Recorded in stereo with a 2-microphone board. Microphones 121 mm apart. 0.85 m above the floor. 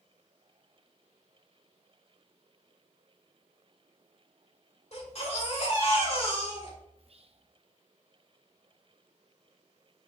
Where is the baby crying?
60° left (ahead or behind), 2 m.